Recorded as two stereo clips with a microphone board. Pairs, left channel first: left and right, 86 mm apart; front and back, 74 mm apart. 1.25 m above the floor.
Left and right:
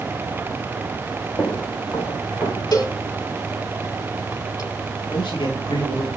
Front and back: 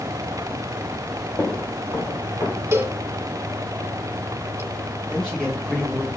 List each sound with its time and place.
1.4 s footsteps: 45° left, 7 m
2.7 s a cowbell: 125° left, 2.5 m
5.1 s a man speaking: 80° left, 10 m